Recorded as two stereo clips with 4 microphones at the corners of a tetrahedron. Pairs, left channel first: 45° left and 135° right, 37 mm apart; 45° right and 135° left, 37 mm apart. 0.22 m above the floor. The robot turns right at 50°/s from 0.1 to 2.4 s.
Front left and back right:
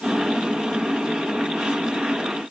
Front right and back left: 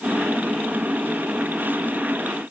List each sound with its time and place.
Only background noise.